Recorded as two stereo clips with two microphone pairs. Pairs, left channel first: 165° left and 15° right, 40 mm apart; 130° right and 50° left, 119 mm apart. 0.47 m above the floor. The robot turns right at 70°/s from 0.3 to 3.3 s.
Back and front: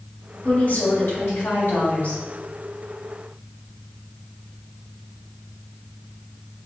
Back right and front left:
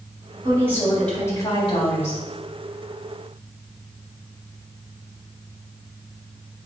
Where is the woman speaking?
100° left, 3 m; by 2.2 s 135° right, 3 m.